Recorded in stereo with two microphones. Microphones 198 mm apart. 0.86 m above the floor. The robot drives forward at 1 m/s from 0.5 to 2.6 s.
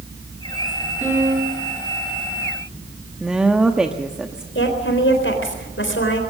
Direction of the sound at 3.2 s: 5° right (ahead or behind).